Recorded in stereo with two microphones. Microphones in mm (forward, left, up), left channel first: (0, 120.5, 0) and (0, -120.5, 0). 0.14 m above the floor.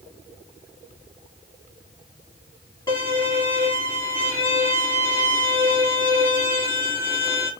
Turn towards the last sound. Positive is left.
turn(degrees=20)  # may be behind; listen again after turning